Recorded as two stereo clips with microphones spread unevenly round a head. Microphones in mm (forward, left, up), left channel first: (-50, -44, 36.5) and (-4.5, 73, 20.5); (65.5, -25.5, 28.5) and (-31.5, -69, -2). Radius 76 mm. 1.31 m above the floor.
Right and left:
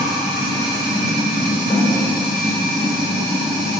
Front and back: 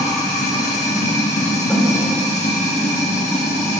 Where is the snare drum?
45° right, 5 m.